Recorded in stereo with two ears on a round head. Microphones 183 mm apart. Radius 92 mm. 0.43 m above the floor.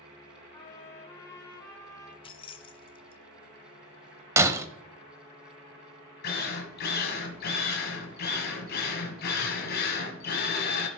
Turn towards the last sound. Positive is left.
turn(degrees=45)  # may be behind; listen again after turning